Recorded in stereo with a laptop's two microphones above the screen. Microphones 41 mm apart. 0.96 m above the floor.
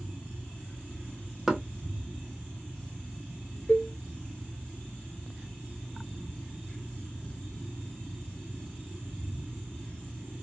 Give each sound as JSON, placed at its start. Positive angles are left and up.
{"t": 1.5, "sound": "knocking", "side_deg": -10, "distance_m": 0.8}
{"t": 3.7, "sound": "a cowbell", "side_deg": 25, "distance_m": 0.8}